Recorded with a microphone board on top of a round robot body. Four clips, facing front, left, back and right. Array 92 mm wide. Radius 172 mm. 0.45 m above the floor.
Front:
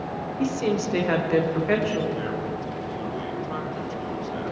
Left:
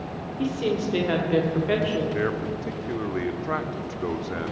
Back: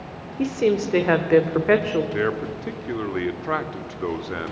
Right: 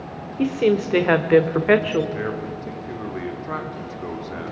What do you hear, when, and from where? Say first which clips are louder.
0.4 s a woman speaking: right 6 dB, back 4 dB; 120° right, 2 m
2.1 s a man speaking: left 1 dB, back 4 dB; 170° left, 2 m